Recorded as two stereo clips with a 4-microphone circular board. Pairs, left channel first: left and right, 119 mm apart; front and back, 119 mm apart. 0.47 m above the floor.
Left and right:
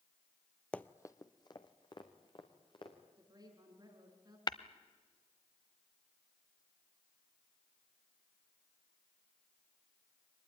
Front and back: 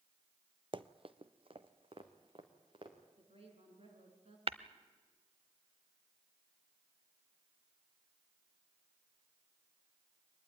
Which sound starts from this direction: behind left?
Tapping, at 4.5 s.